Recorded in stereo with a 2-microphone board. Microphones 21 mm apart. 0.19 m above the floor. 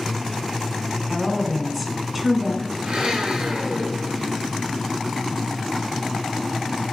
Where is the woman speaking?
10° right (ahead or behind), 1.4 m.